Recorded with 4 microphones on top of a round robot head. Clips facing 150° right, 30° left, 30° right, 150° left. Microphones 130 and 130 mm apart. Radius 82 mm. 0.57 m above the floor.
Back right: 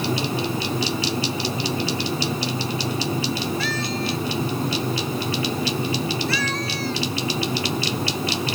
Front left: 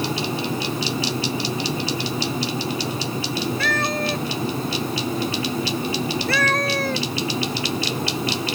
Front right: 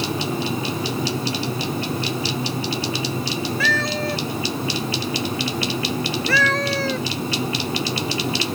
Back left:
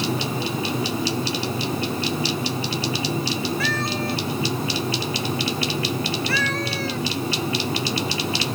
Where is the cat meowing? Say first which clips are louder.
Front left 2 dB, front right 2 dB; 10° right.